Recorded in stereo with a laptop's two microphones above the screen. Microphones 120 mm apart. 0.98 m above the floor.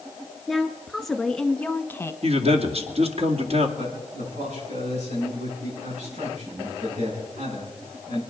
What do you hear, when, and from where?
0.5 s a woman speaking: centre (ahead or behind), 2 m; by 2.1 s 25° left (ahead or behind), 0.9 m
2.2 s a man speaking: 60° right (ahead or behind), 2 m
3.8 s a man speaking: 80° right, 9 m